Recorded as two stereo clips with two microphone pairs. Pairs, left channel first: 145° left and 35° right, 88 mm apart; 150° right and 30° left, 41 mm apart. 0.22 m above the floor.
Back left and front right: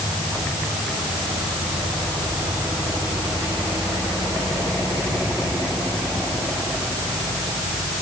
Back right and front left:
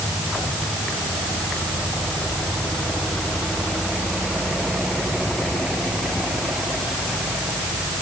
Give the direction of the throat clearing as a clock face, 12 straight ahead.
No throat clearing in this recording.